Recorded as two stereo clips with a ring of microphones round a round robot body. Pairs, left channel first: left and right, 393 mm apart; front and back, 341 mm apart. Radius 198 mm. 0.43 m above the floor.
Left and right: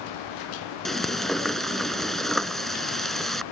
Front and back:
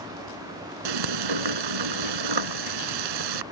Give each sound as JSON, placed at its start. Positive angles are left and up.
{"t": 0.8, "sound": "frying", "azimuth_deg": 180}